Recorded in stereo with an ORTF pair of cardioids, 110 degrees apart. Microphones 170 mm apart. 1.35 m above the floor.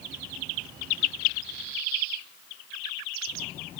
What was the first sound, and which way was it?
Only background noise.